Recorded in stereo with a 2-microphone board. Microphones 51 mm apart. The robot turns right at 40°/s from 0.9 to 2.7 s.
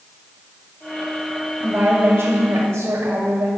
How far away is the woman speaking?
About 2.0 m.